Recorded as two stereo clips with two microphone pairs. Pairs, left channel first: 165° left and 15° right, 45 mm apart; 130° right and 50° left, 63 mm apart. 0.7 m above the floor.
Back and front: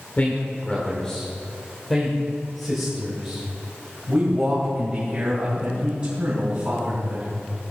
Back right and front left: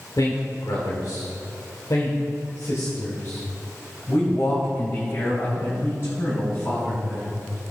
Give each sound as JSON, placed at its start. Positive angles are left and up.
{"t": 0.2, "sound": "a man speaking", "azimuth_deg": -145, "distance_m": 1.9}